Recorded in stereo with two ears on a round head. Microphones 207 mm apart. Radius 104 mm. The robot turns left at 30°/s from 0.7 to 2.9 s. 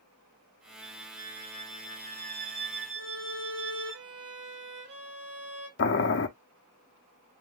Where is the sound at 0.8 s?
Straight ahead, 3 m; by 4.0 s 60° right, 3 m.